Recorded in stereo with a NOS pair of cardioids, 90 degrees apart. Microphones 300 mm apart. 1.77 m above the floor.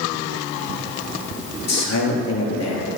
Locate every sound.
1.7 s a man speaking: 60° left, 3.5 m